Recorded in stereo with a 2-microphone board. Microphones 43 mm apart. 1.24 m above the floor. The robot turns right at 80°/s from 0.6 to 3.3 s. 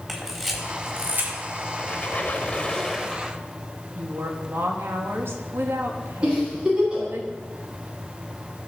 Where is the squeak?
70° left, 1.2 m; by 3.4 s 170° right, 1.2 m.